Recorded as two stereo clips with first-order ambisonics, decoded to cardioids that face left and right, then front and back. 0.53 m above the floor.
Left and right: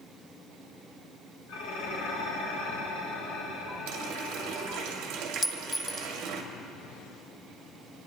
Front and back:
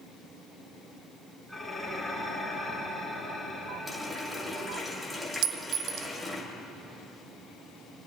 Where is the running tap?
95° right, 1.6 m.